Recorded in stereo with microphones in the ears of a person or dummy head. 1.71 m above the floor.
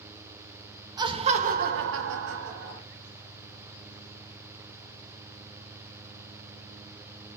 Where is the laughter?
20° right (ahead or behind), 0.7 m; by 2.8 s 60° right (ahead or behind), 0.8 m.